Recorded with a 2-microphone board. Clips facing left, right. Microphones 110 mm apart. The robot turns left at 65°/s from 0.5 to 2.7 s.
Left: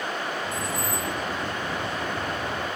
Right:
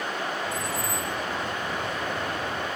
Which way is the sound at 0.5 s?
65° left.